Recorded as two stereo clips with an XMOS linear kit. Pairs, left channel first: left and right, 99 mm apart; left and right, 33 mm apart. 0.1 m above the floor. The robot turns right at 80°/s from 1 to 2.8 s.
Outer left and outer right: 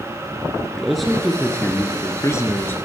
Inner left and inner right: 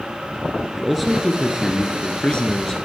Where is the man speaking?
Straight ahead, 1.4 m; by 2.8 s 140° left, 1.4 m.